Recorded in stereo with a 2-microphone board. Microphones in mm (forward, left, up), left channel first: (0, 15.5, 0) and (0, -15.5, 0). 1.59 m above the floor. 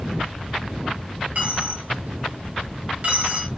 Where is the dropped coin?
55° right (ahead or behind), 2.5 m.